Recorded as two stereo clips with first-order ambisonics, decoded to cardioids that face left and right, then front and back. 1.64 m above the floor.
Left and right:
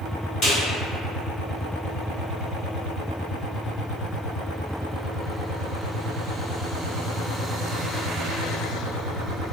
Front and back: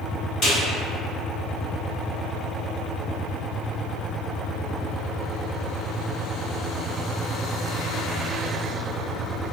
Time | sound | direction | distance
0.4 | a snare drum | 40° left | 1.8 m